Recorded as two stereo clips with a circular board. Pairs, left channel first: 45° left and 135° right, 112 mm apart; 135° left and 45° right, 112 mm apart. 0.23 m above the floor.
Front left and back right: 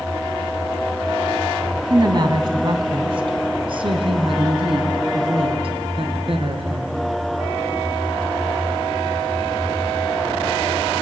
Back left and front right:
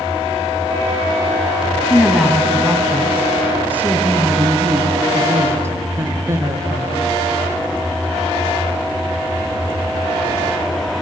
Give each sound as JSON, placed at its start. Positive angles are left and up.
{"t": 1.9, "sound": "a woman speaking", "azimuth_deg": -130, "distance_m": 1.5}